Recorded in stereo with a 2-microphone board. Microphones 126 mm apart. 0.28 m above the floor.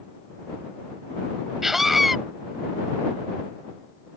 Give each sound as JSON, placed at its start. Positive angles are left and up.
{"t": 1.6, "sound": "a scream", "side_deg": 0}